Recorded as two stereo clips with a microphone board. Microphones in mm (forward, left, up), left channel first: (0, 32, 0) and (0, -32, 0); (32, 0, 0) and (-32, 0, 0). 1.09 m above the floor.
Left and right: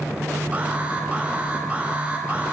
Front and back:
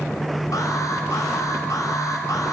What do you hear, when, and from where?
0.5 s an alarm: 25° right, 4 m